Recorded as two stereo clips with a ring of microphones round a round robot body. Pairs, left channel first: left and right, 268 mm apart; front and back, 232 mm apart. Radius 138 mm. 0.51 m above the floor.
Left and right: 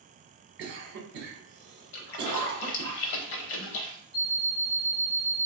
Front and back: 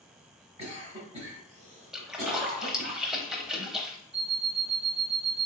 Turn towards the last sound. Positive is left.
turn(degrees=135)